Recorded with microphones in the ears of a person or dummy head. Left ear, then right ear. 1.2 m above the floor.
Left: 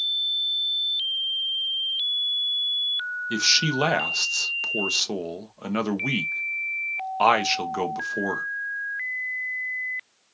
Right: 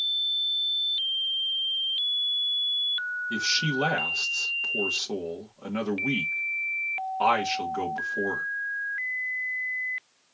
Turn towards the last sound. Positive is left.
turn(degrees=85)